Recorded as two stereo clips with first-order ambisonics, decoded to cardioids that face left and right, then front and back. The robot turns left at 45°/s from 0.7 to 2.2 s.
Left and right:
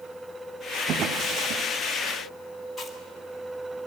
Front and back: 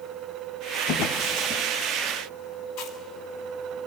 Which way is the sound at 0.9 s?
35° right.